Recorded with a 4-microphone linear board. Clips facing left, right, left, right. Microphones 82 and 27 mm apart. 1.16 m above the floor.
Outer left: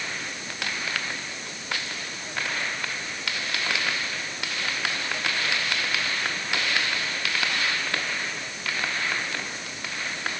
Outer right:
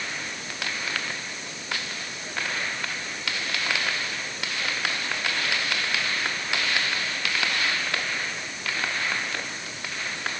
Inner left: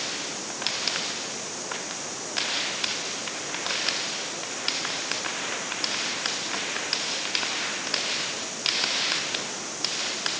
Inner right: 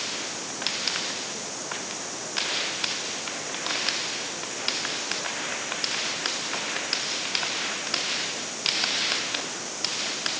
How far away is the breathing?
No breathing in this recording.